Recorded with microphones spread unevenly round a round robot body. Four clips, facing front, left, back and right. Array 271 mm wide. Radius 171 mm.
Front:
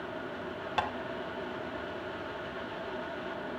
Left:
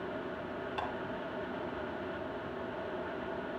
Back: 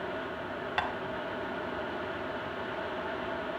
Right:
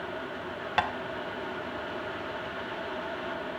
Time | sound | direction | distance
0.8 | tapping | 70° right | 0.8 m